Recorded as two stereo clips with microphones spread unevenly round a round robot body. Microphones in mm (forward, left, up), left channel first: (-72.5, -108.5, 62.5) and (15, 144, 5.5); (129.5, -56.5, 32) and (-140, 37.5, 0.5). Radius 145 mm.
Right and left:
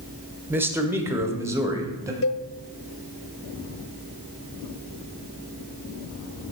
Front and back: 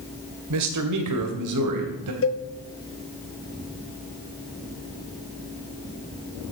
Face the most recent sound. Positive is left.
turn(degrees=-65)